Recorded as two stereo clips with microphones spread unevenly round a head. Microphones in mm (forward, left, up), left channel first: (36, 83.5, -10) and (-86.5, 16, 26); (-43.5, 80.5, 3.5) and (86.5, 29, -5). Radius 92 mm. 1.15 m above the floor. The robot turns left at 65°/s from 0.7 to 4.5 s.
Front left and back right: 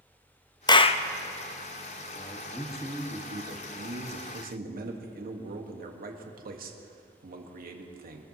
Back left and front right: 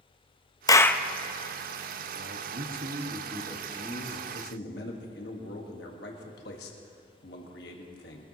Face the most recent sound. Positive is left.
turn(degrees=-175)